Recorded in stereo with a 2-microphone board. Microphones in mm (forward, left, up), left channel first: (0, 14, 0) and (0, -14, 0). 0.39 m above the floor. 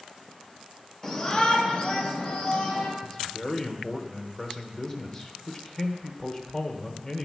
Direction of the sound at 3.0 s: 25° left (ahead or behind).